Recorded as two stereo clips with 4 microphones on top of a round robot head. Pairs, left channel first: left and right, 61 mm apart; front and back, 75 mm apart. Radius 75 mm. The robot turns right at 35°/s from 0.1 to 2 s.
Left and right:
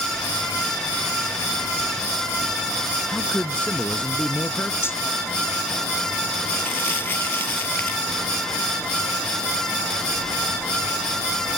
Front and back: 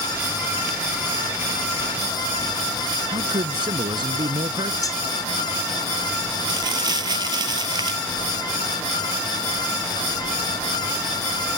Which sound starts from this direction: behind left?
Crumpling, at 6.5 s.